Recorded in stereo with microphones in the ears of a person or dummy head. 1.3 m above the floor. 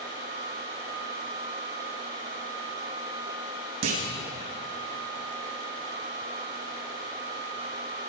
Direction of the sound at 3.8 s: 70° right (ahead or behind).